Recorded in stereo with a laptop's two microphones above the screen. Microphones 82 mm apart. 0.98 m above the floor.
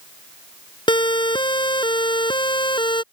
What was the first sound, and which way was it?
A siren, 75° left (ahead or behind).